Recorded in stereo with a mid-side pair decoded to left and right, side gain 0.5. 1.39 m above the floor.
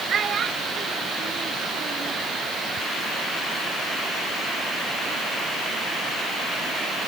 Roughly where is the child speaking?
Ahead right.